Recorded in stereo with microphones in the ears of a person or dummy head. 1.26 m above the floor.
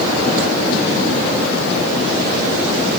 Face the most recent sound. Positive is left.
No sound to turn to.